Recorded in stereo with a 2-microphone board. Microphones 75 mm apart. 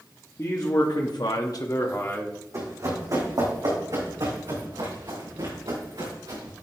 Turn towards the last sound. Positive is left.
turn(degrees=-80)